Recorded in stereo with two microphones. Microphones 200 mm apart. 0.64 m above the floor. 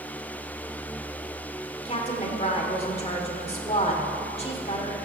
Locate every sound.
1.9 s a woman speaking: 30° left (ahead or behind), 1.8 m